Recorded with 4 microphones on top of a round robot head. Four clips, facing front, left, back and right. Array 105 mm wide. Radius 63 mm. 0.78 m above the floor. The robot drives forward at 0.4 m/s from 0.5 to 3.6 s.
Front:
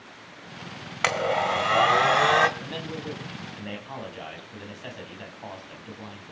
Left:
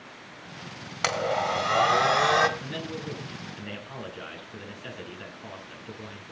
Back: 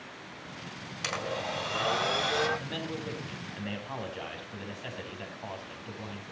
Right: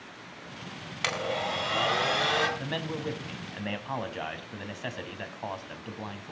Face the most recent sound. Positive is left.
turn(degrees=-90)